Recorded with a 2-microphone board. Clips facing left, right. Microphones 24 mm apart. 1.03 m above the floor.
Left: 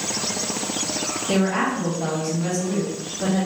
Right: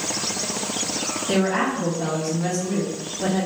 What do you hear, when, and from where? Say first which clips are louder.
1.3 s a woman speaking: even; 10° right (ahead or behind), 1.6 m